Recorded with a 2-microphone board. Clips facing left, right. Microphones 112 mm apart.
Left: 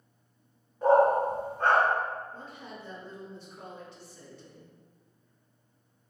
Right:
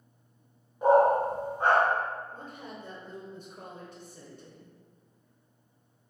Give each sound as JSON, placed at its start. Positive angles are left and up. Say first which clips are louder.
{"t": 0.8, "sound": "a dog barking", "louder": "even", "side_deg": -15, "distance_m": 0.8}
{"t": 2.3, "sound": "a woman speaking", "louder": "right 1 dB", "side_deg": -45, "distance_m": 0.8}